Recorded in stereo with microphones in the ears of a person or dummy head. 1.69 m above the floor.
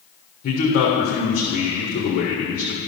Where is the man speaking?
50° left (ahead or behind), 1.6 m.